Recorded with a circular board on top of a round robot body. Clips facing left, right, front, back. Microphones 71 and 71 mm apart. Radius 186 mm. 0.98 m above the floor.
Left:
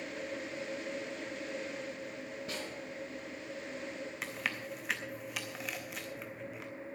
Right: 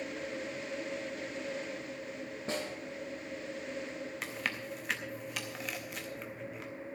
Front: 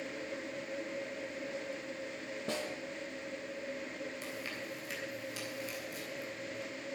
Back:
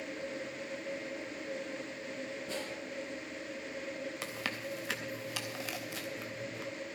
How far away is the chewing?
About 0.6 m.